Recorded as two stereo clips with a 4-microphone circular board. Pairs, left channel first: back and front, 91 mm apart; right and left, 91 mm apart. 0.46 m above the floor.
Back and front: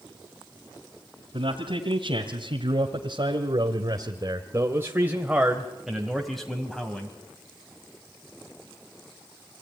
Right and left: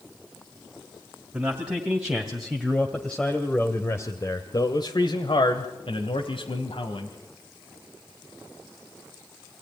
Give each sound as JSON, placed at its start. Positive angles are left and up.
{"t": 1.3, "sound": "a man speaking", "azimuth_deg": 15, "distance_m": 3.0}